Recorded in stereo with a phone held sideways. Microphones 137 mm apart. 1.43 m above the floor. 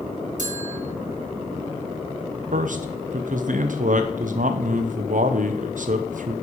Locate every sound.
0.4 s a bell: 60° right (ahead or behind), 1.3 m
2.5 s a man speaking: 70° right (ahead or behind), 0.6 m